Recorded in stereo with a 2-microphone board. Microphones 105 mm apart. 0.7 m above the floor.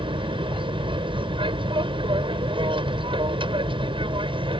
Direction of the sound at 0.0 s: 55° right (ahead or behind).